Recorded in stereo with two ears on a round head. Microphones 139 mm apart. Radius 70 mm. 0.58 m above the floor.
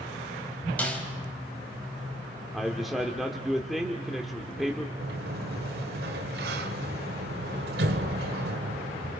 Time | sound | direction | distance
0.8 | a snare drum | 10° left (ahead or behind) | 3.5 m
2.5 | a man speaking | centre (ahead or behind) | 1.3 m
5.0 | a sliding door | 70° right (ahead or behind) | 1.5 m